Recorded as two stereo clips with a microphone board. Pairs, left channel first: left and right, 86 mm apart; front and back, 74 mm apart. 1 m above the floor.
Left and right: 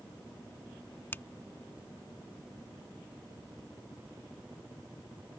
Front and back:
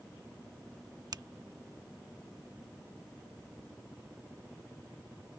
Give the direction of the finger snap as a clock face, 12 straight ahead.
7 o'clock.